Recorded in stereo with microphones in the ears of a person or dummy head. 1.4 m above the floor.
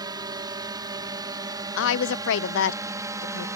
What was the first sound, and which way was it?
A drone, 25° right (ahead or behind).